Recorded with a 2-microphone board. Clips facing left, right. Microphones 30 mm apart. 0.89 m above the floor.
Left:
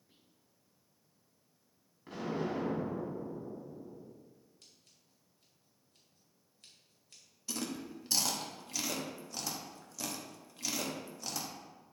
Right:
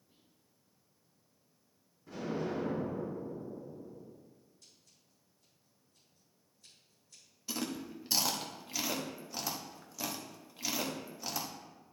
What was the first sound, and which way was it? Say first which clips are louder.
Whispering: left 1 dB; 35° left (ahead or behind).